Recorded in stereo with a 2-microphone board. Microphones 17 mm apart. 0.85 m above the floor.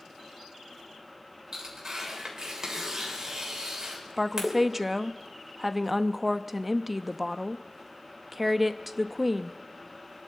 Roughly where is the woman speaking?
Centre.